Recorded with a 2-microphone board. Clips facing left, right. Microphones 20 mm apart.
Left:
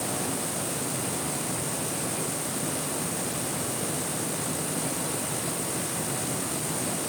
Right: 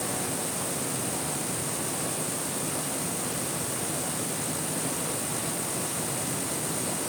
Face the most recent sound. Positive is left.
No sound to turn to.